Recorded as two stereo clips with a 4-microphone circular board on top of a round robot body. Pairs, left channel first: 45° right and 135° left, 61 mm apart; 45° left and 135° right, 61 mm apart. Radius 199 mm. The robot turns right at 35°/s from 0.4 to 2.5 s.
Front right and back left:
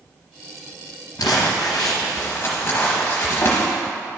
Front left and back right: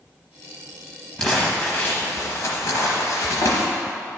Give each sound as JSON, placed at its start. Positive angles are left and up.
{"t": 1.2, "sound": "crumpling", "azimuth_deg": -35, "distance_m": 0.8}